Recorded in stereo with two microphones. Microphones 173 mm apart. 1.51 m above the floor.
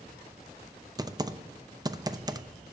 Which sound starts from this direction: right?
Typing on a keyboard, at 1.0 s.